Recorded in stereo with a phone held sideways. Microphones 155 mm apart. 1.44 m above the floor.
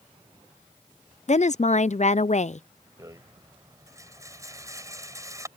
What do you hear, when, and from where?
1.3 s a woman speaking: 55° left (ahead or behind)
3.0 s a rattle: 20° right (ahead or behind)